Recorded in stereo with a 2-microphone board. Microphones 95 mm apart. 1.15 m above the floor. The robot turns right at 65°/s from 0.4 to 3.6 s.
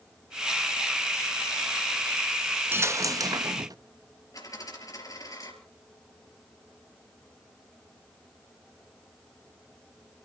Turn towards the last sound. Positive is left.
turn(degrees=40)  # may be behind; listen again after turning